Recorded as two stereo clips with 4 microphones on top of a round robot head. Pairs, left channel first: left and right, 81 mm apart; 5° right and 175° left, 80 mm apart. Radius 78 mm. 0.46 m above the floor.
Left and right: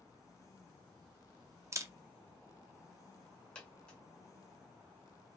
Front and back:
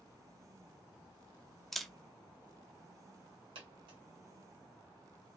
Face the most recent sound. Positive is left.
turn(degrees=165)